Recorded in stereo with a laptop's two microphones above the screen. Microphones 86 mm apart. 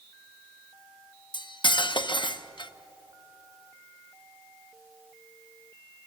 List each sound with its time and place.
1.3 s cutlery clinking: 65° left (ahead or behind), 0.8 m